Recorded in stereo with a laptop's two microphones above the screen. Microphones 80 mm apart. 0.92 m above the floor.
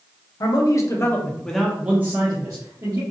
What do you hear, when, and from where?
0.4 s a man speaking: 55° left (ahead or behind), 0.8 m; by 3.0 s 50° right (ahead or behind), 1.0 m